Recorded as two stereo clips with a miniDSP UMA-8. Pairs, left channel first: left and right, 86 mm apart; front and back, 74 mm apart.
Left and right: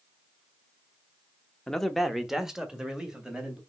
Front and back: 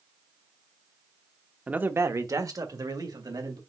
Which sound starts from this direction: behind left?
A man speaking, at 1.7 s.